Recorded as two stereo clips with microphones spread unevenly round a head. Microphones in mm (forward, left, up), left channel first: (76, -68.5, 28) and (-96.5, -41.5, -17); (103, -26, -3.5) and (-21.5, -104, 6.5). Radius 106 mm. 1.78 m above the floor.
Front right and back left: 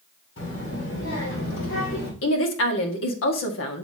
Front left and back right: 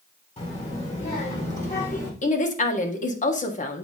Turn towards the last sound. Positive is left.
turn(degrees=-10)